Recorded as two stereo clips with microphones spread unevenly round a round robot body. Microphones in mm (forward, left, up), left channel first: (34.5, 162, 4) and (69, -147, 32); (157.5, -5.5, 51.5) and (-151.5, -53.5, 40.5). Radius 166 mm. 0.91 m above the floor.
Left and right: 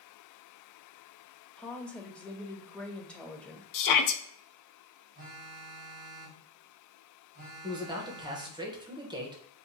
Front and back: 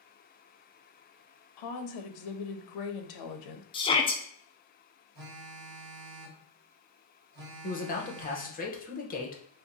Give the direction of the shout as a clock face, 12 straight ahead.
9 o'clock.